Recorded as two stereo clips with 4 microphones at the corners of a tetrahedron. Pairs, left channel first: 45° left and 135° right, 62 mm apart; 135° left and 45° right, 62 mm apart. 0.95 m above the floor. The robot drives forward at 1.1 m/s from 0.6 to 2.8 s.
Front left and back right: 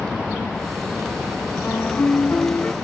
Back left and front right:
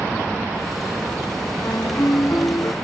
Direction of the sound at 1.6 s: 95° left.